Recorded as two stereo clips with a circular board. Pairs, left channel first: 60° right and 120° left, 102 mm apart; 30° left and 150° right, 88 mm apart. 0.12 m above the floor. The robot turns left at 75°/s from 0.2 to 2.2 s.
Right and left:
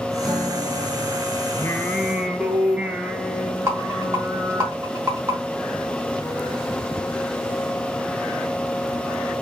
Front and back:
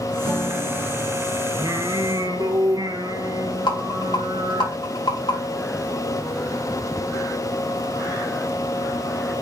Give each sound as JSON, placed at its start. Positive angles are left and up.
{"t": 0.2, "sound": "a guitar", "azimuth_deg": -145, "distance_m": 4.0}
{"t": 1.6, "sound": "singing", "azimuth_deg": -115, "distance_m": 1.1}
{"t": 3.7, "sound": "a rattle", "azimuth_deg": 60, "distance_m": 4.0}